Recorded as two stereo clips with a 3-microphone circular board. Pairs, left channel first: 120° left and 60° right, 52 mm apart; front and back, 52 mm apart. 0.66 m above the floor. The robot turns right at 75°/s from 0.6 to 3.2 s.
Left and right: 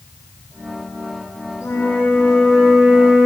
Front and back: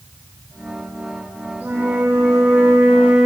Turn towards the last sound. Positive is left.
turn(degrees=-105)